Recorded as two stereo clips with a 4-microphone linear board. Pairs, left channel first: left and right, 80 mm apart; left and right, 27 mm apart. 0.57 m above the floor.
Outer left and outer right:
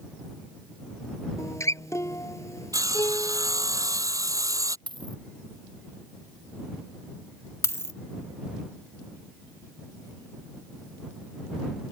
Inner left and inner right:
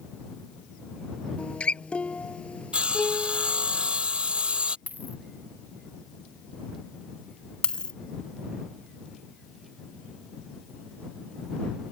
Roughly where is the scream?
No scream in this recording.